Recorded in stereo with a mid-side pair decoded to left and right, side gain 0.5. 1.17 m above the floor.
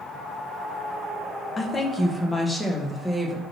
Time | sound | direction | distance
1.6 | a woman speaking | 25° left | 1.2 m